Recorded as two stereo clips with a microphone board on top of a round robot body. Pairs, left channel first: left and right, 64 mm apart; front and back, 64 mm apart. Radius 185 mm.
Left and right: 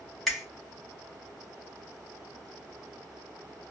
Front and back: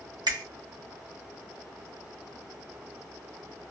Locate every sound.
0.3 s a finger snap: straight behind, 1.7 m